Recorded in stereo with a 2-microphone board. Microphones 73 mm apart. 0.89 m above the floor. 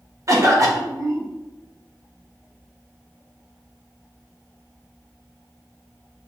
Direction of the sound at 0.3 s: 50° right (ahead or behind).